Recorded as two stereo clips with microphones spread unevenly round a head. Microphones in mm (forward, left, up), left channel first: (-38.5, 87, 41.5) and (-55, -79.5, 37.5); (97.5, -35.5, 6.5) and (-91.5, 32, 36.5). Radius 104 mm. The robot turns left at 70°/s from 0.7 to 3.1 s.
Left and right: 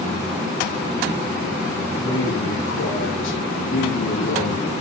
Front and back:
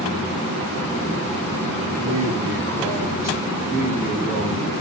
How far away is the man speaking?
About 7 m.